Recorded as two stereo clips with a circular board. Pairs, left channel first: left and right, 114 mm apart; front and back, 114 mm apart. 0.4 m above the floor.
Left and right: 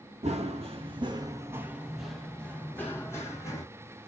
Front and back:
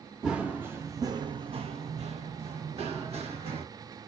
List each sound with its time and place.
0.2 s running footsteps: 95° right, 0.8 m; by 3.6 s 150° left, 1.4 m